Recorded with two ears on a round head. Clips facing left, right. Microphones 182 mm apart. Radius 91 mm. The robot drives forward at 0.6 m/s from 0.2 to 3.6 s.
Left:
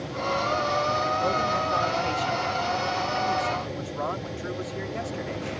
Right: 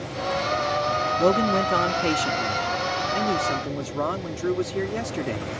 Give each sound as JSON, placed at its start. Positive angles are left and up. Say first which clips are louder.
{"t": 1.2, "sound": "a man speaking", "louder": "right 6 dB", "side_deg": -75}